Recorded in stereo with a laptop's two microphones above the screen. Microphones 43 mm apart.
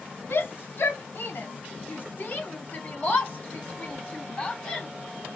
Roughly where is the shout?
Left.